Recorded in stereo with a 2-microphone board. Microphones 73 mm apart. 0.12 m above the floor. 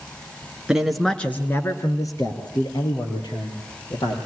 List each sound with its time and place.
0.7 s a man speaking: 10° right (ahead or behind), 1.8 m; by 4.2 s 70° left (ahead or behind), 5 m